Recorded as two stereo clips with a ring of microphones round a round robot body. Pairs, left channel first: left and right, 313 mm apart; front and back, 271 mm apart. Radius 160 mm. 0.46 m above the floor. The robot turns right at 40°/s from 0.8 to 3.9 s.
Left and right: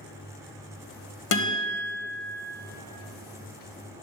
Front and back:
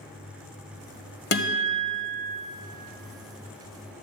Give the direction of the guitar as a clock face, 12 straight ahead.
10 o'clock.